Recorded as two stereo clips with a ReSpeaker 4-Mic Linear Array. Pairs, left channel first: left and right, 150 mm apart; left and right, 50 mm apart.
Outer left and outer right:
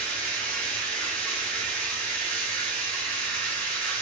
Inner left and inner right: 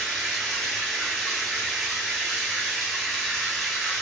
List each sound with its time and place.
0.0 s running water: 10° left (ahead or behind), 1.1 m